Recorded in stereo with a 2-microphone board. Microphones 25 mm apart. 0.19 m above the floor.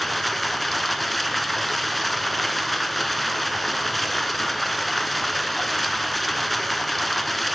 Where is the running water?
5° left (ahead or behind), 1.1 m.